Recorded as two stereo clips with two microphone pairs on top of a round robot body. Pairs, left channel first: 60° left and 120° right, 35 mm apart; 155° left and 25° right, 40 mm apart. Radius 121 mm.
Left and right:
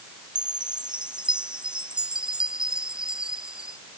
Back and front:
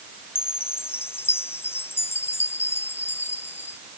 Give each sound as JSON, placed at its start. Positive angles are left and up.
{"t": 0.3, "sound": "a chime", "azimuth_deg": 180}